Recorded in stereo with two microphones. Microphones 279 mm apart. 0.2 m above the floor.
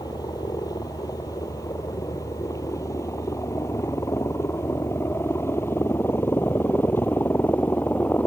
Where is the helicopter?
15° left (ahead or behind); by 8.3 s 5° left (ahead or behind).